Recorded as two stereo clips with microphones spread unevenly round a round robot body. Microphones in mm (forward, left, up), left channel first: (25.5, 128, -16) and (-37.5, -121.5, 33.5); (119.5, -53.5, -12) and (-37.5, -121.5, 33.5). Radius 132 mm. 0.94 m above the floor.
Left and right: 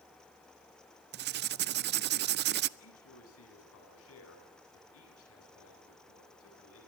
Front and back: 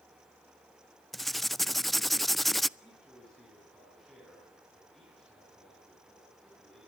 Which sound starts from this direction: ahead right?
Writing, at 1.1 s.